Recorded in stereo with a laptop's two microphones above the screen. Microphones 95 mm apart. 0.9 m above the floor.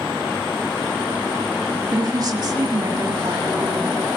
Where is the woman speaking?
45° right (ahead or behind), 1.7 m.